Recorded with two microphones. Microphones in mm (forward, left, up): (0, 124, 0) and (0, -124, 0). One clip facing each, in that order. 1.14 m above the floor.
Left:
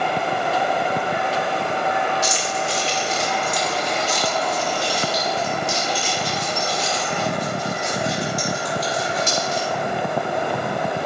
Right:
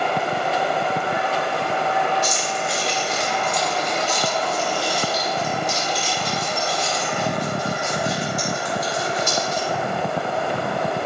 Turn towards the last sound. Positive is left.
turn(degrees=85)